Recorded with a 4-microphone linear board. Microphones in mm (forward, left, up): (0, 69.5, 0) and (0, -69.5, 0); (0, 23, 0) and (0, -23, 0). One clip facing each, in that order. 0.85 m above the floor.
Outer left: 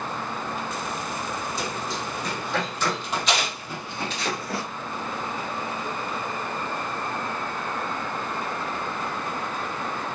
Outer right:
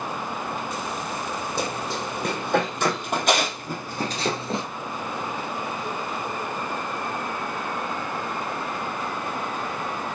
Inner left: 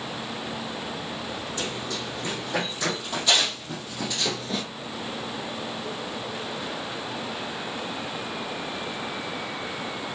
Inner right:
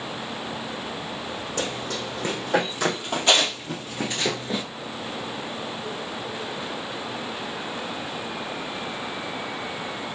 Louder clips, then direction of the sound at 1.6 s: Outer right 2 dB, inner right 4 dB; 60° right (ahead or behind).